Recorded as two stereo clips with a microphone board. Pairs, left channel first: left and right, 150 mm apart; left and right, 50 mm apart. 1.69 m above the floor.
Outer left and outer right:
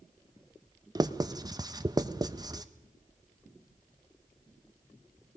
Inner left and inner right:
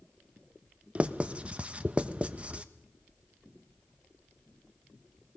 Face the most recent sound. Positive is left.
turn(degrees=-25)  # may be behind; listen again after turning